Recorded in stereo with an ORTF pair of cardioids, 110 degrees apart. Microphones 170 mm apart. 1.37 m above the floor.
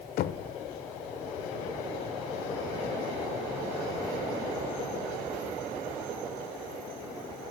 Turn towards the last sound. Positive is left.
turn(degrees=60)